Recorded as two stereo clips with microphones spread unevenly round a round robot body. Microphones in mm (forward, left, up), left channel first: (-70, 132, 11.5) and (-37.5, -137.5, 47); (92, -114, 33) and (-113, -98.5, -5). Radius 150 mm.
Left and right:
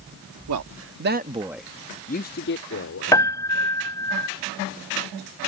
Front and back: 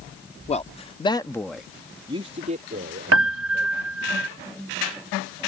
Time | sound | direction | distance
0.5 | a man speaking | 65° right | ?
3.1 | a piano | 175° left | ?